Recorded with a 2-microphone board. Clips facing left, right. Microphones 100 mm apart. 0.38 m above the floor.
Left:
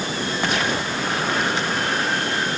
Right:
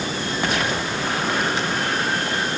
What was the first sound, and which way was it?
Only background noise.